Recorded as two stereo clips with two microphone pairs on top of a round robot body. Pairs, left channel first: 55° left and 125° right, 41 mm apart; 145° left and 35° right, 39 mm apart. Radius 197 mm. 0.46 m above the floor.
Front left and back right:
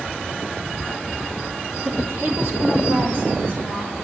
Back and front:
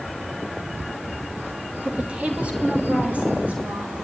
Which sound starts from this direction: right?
A woman speaking, at 1.9 s.